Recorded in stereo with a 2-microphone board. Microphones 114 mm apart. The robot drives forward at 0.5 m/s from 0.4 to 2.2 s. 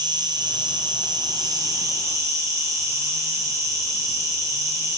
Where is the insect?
35° right (ahead or behind), 0.8 m; by 5.0 s 25° right (ahead or behind), 1.1 m.